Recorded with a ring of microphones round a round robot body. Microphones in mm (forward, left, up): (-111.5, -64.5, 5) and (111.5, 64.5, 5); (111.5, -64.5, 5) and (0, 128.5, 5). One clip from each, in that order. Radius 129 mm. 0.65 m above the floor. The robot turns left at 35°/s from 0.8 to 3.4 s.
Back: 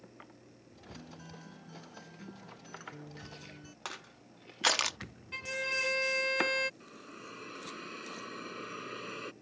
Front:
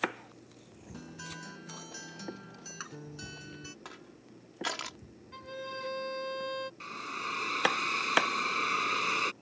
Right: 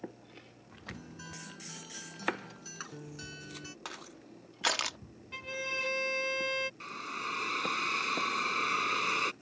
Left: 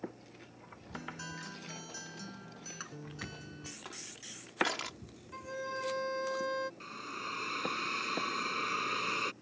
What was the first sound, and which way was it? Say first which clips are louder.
A guitar: front 8 dB, left 4 dB; 70° left.